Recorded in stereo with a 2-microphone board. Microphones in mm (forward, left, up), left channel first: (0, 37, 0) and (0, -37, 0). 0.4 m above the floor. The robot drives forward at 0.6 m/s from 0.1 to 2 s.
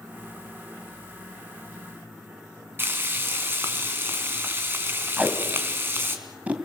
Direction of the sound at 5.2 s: 20° right (ahead or behind).